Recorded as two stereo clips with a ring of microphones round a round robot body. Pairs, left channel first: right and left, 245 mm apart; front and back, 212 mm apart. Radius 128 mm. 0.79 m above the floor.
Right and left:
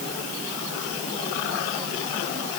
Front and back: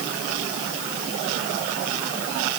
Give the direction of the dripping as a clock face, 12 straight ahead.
No dripping in this recording.